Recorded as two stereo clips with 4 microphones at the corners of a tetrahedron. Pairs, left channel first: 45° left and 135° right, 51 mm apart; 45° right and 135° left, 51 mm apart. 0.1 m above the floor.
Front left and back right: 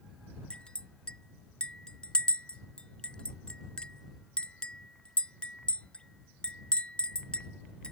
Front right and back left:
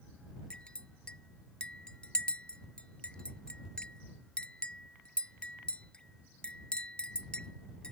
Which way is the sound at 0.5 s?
Straight ahead.